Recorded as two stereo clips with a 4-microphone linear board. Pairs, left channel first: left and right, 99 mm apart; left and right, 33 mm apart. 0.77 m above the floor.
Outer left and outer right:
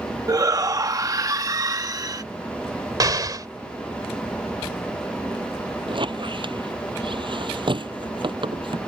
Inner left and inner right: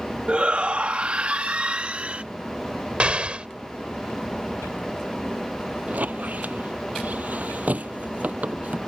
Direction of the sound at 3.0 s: 40° right (ahead or behind).